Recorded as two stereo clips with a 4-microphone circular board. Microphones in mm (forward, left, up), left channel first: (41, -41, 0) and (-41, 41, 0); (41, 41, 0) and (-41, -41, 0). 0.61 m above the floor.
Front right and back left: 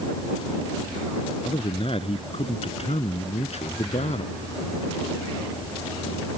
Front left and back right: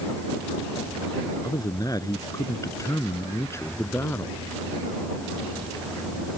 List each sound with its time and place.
1.4 s a man speaking: 10° right; by 4.4 s 25° right